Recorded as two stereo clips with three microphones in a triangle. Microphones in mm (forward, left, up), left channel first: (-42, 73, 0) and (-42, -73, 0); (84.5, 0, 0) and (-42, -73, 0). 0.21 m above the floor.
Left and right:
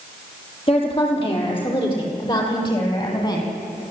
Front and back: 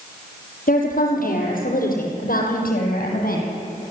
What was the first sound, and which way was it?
A woman speaking, 40° left.